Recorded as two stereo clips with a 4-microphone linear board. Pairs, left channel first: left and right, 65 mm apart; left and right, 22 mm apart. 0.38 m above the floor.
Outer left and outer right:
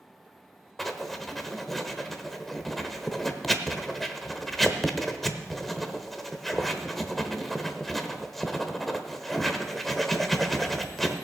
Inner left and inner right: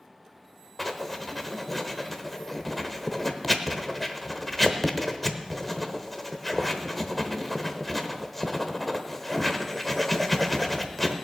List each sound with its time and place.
0.8 s writing: centre (ahead or behind), 1.0 m